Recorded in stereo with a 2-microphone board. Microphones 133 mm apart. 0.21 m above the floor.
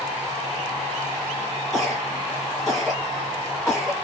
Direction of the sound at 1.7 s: 5° left (ahead or behind).